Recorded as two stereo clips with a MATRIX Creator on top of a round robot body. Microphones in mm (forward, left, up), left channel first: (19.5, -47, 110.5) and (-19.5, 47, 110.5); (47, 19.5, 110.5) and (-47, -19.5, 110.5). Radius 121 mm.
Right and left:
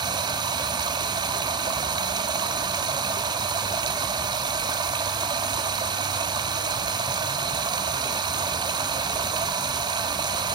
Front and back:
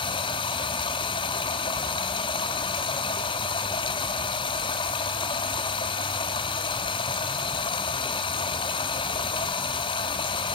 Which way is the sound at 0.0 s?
65° left.